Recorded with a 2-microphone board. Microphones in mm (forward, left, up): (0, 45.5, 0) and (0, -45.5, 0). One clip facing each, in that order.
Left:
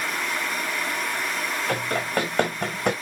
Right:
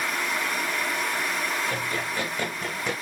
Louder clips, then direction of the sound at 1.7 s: Left 4 dB; 80° left.